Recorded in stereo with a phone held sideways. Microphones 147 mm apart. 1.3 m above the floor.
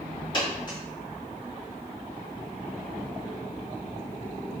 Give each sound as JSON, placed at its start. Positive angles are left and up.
{"t": 0.3, "sound": "a dropped coin", "side_deg": 30, "distance_m": 1.5}